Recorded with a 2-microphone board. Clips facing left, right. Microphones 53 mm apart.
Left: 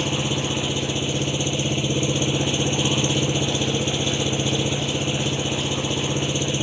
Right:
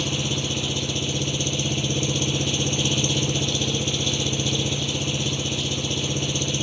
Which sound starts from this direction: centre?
An engine running, at 0.0 s.